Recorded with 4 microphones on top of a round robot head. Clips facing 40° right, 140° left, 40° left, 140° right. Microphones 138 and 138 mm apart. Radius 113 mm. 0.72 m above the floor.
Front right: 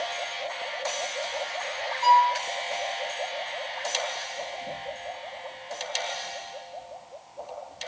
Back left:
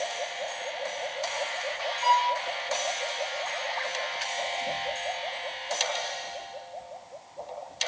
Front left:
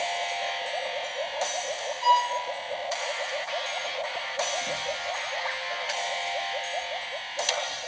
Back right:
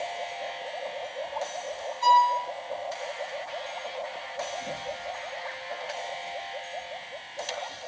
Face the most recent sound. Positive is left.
turn(degrees=-95)